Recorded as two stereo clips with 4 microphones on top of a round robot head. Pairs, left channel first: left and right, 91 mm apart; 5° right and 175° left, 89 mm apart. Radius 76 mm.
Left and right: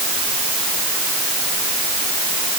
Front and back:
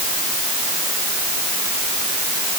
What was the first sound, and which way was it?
Only background noise.